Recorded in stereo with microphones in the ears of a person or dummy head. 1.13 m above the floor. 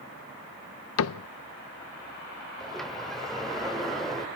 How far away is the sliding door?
About 2.5 m.